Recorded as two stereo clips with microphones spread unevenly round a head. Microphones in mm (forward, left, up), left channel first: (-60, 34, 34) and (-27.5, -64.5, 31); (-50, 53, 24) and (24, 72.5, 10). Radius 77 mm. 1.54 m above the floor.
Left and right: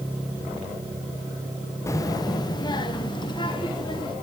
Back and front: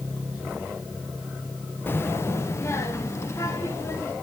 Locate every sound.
1.9 s a child speaking: 160° left, 0.6 m; by 4.1 s 145° left, 3 m